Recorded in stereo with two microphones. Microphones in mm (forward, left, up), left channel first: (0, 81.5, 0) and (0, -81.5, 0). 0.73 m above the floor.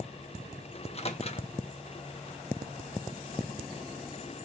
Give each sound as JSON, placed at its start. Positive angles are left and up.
{"t": 0.8, "sound": "a microwave", "side_deg": 40, "distance_m": 0.7}